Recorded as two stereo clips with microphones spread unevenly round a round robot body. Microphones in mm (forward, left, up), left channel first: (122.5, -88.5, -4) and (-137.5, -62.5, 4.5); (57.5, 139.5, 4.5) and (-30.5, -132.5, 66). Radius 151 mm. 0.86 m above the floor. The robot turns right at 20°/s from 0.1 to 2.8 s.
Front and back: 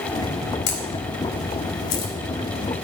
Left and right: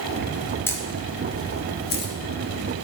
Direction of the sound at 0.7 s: 10° right.